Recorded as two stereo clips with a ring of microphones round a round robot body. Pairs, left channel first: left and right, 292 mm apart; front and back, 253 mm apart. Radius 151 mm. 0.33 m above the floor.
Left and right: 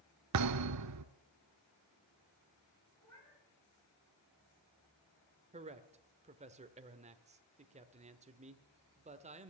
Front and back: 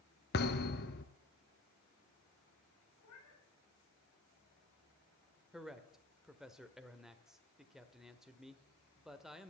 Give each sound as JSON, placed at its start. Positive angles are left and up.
{"t": 0.3, "sound": "a thud", "azimuth_deg": -60, "distance_m": 0.8}
{"t": 3.0, "sound": "a cat meowing", "azimuth_deg": 10, "distance_m": 7.5}
{"t": 5.5, "sound": "a man speaking", "azimuth_deg": -95, "distance_m": 1.1}